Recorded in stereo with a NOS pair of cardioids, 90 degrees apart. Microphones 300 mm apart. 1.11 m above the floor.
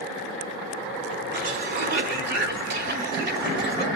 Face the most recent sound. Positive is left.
turn(degrees=-35)